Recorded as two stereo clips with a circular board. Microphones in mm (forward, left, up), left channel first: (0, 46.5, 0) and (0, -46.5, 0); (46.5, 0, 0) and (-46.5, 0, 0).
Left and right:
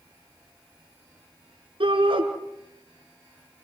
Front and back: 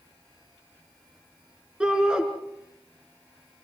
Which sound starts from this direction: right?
A shout, at 1.8 s.